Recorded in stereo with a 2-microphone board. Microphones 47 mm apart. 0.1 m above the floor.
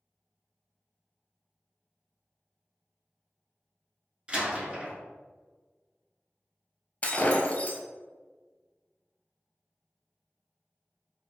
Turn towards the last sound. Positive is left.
turn(degrees=30)  # may be behind; listen again after turning